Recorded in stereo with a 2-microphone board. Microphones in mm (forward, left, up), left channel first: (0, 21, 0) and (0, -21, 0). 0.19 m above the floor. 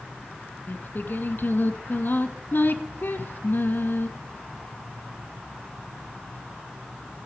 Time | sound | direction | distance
0.7 | singing | 55° left (ahead or behind) | 0.9 m